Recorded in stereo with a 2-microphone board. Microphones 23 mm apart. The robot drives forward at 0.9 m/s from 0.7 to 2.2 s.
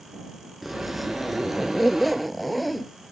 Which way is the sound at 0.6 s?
Centre (ahead or behind).